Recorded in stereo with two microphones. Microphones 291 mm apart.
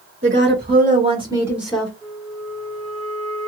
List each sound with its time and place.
0.2 s a woman speaking: 45° right (ahead or behind), 1.6 m; by 1.9 s 5° left (ahead or behind), 1.3 m
2.0 s a flute: 65° right (ahead or behind), 1.6 m